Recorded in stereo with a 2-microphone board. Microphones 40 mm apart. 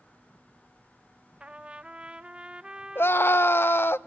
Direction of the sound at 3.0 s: 70° left (ahead or behind).